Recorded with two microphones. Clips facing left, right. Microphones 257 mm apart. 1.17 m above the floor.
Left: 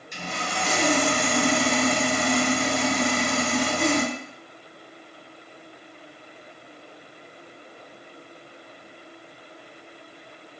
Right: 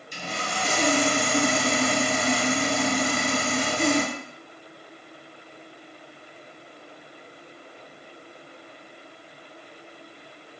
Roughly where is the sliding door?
I don't hear a sliding door.